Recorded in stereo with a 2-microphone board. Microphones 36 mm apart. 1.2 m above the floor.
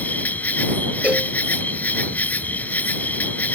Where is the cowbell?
35° right (ahead or behind).